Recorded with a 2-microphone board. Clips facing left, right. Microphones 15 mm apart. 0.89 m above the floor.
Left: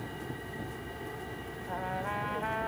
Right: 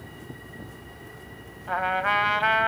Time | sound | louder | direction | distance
0.0 | an aircraft | left 2 dB | 45° left (ahead or behind) | ?
1.7 | a trumpet | right 12 dB | 70° right (ahead or behind) | ?